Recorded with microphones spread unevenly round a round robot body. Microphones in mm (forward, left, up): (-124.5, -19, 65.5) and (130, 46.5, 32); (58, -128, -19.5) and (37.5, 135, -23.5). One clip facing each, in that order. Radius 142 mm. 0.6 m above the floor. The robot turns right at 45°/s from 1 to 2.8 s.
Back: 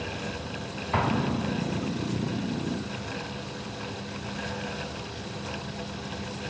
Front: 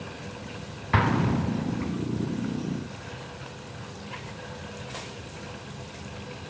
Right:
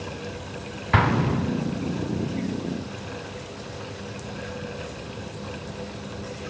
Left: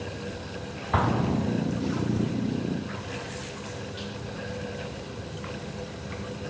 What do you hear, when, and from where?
0.9 s an explosion: 40° right, 0.5 m; by 1.9 s 5° left, 0.5 m